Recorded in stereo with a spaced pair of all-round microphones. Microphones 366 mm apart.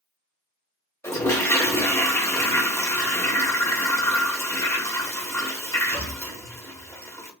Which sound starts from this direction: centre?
A toilet flushing, at 1.0 s.